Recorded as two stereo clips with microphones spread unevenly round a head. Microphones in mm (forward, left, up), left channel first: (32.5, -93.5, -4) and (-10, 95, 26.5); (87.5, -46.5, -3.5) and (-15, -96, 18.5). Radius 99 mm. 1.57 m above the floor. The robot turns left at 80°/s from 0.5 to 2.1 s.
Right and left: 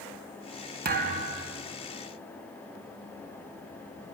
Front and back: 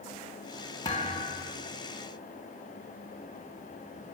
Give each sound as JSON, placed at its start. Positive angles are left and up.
{"t": 0.8, "sound": "a thud", "azimuth_deg": 95, "distance_m": 1.6}